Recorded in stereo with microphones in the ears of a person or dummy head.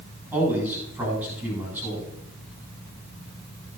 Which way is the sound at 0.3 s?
15° right (ahead or behind).